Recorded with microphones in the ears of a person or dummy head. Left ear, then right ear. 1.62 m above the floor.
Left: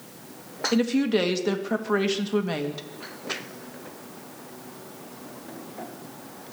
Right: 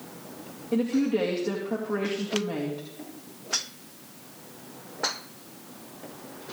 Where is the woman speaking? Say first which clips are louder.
Left 2 dB; 70° left (ahead or behind), 2 m.